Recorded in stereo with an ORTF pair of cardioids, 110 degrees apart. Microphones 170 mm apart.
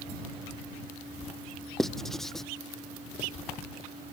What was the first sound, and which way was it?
Writing, straight ahead.